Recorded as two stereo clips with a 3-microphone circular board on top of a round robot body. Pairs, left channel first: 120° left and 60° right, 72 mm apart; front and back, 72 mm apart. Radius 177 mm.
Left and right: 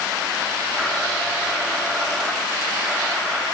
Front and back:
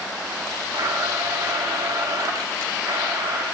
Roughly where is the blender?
Behind right.